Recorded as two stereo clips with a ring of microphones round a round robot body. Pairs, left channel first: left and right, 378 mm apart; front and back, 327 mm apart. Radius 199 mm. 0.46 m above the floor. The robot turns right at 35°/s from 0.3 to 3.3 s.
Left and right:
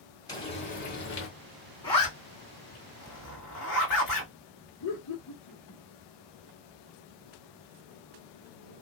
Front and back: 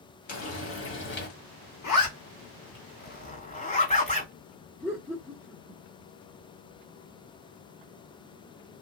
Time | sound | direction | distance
0.3 | frying | 15° left | 1.6 m
1.8 | a zipper | 15° left | 2 m
4.8 | laughter | 85° left | 1.4 m